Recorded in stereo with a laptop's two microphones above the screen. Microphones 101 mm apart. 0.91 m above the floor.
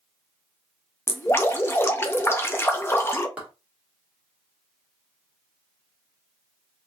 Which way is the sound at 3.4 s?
10° right (ahead or behind).